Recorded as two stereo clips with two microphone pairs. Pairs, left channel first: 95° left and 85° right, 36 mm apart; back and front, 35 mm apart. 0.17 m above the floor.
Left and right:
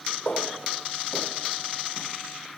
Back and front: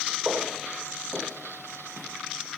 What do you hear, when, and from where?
0.2 s footsteps: 70° left, 4 m; by 2.1 s 90° left, 4 m